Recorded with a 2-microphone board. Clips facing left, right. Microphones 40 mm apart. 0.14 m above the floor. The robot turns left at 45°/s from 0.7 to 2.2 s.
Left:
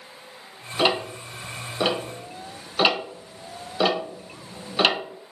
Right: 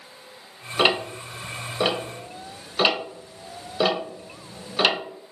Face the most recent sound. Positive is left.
turn(degrees=5)  # may be behind; listen again after turning